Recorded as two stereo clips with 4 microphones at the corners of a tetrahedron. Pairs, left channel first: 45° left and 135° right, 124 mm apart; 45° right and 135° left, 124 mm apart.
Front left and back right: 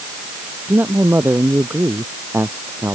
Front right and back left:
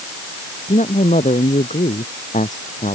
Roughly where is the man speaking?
Ahead right.